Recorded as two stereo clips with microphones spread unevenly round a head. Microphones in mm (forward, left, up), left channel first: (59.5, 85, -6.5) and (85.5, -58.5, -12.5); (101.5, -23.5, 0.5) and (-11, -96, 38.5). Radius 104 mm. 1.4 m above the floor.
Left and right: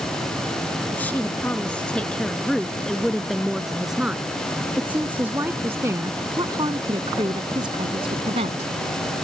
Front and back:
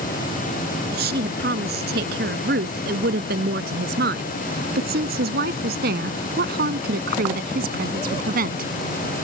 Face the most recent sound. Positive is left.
turn(degrees=-145)